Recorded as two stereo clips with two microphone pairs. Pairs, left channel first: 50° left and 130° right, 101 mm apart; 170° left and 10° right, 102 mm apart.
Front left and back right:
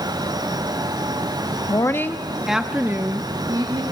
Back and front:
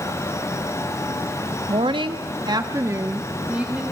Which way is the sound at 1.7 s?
Straight ahead.